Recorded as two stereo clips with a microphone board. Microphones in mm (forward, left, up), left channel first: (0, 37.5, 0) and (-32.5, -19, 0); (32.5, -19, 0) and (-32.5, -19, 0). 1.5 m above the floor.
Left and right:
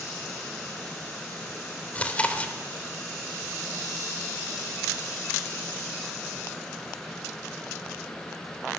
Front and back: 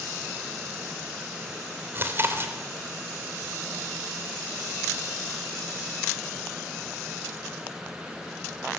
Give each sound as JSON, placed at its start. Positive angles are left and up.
{"t": 1.9, "sound": "chewing", "azimuth_deg": 130, "distance_m": 3.0}